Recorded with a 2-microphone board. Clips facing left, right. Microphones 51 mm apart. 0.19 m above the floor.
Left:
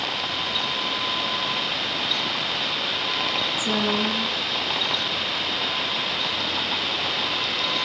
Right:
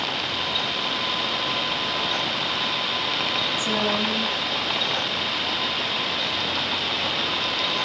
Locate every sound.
3.6 s a woman speaking: 15° left (ahead or behind), 1.0 m